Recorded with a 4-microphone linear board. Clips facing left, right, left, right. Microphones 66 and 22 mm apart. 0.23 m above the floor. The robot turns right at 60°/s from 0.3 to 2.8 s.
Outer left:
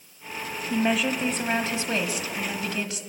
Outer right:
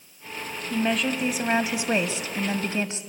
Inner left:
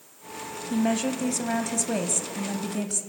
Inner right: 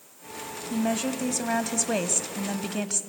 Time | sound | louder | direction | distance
0.7 | a woman speaking | outer left 1 dB, inner left 2 dB | 10° left (ahead or behind) | 1.0 m